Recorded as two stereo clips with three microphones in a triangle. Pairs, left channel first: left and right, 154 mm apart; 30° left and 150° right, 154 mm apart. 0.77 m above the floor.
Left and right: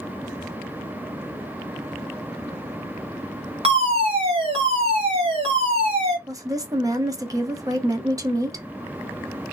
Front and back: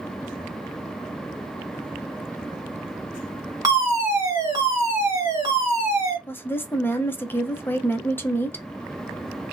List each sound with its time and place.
3.6 s a fire alarm: 95° right, 2.0 m
6.3 s a woman speaking: 40° right, 0.6 m